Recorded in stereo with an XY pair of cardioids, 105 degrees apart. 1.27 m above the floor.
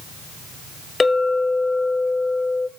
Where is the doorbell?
No doorbell in this recording.